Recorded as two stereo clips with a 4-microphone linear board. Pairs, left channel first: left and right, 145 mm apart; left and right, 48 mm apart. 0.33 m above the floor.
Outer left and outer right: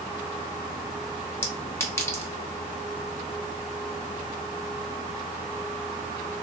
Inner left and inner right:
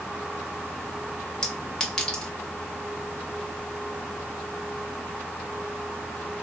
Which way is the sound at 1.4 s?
20° left (ahead or behind).